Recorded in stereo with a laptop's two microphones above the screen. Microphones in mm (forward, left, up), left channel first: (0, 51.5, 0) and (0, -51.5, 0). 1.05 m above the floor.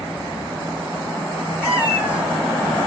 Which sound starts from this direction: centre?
A cat meowing, at 1.6 s.